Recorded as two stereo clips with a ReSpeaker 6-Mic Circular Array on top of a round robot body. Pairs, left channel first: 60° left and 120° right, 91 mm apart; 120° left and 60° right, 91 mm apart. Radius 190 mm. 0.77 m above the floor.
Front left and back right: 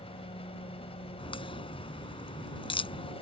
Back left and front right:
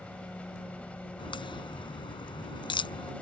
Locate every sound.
0.0 s an engine running: 40° left
1.2 s a crack: 85° left